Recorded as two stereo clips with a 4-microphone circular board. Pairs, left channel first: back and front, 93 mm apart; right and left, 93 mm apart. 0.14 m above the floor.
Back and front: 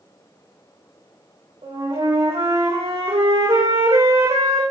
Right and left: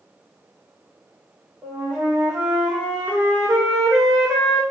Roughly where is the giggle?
I don't hear a giggle.